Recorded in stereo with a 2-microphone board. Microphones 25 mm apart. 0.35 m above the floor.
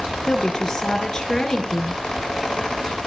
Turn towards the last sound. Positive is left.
turn(degrees=20)  # may be behind; listen again after turning